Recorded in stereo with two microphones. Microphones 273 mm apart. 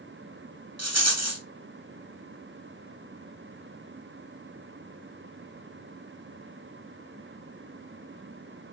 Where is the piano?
I don't hear a piano.